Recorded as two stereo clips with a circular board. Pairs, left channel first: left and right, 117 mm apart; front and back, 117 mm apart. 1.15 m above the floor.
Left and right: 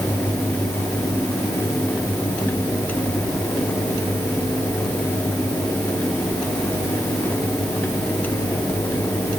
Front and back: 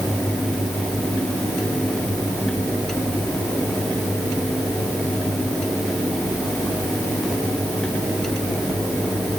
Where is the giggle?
I don't hear a giggle.